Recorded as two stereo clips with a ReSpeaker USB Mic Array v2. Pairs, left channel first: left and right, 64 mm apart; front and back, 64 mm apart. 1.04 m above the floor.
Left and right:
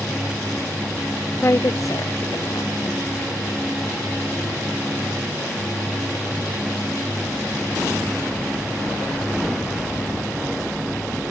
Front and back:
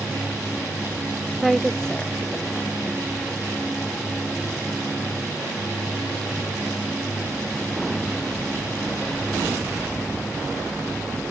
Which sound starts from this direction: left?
A woman speaking, at 1.4 s.